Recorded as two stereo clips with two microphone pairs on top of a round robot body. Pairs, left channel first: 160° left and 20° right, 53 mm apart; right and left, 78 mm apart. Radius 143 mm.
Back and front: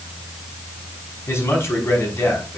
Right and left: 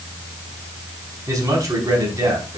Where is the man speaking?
130° left, 5 m.